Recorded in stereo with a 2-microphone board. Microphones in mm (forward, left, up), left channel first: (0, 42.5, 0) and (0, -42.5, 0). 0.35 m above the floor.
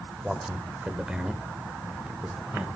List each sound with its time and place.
0.2 s a man speaking: 5° right (ahead or behind), 1.1 m; by 2.7 s 10° right (ahead or behind), 1.2 m